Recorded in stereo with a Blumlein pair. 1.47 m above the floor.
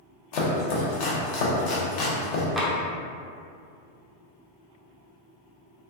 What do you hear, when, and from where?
0.3 s chopping: 40° left, 0.7 m
2.6 s tapping: straight ahead, 0.6 m